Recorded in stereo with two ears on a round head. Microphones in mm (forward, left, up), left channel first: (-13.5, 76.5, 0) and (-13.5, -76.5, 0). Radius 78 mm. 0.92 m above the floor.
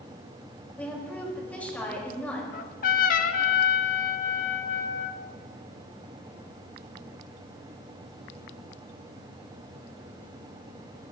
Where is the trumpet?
50° left (ahead or behind), 0.9 m.